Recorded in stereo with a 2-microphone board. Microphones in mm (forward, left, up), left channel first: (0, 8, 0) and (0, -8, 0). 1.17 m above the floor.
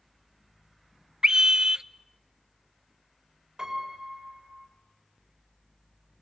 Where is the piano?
40° right (ahead or behind), 6 m.